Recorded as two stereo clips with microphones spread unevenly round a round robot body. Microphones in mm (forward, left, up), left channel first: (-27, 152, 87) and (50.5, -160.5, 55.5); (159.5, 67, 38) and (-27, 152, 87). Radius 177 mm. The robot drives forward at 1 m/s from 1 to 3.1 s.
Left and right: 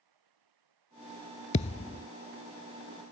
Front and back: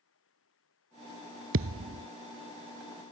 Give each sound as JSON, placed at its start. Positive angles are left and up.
{"t": 0.0, "sound": "running water", "azimuth_deg": -60}
{"t": 1.5, "sound": "a thud", "azimuth_deg": 170}